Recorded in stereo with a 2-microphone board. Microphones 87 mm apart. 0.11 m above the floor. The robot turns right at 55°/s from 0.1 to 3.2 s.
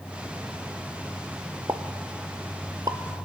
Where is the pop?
45° right (ahead or behind), 0.6 m; by 3.0 s 50° right (ahead or behind), 0.6 m.